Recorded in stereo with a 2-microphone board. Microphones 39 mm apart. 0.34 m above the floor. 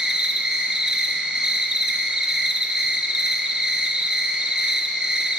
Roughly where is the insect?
Right.